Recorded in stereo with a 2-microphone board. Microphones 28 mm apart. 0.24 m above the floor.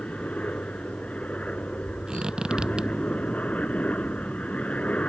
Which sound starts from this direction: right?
A squeak, at 2.1 s.